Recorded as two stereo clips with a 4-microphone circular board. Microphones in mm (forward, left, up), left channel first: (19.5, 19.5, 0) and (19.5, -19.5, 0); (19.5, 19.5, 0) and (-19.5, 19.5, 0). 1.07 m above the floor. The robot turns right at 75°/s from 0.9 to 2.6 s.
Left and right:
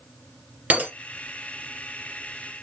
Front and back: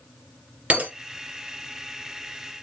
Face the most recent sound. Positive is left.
turn(degrees=0)